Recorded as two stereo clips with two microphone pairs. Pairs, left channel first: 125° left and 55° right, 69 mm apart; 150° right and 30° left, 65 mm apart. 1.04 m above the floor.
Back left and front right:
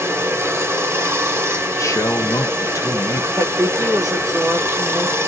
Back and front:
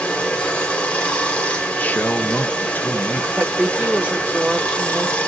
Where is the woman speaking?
40° right, 1.3 m.